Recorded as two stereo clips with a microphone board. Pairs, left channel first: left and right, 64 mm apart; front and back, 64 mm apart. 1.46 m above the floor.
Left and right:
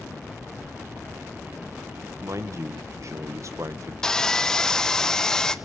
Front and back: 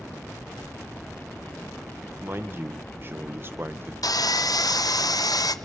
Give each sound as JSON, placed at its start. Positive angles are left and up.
{"t": 2.2, "sound": "a man speaking", "azimuth_deg": -125, "distance_m": 1.4}
{"t": 4.0, "sound": "sawing", "azimuth_deg": 10, "distance_m": 0.8}